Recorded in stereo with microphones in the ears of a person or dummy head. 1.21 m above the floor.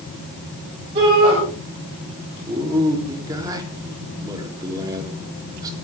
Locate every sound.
0.9 s a shout: 30° right (ahead or behind), 8 m
2.5 s a man speaking: 20° right (ahead or behind), 3.5 m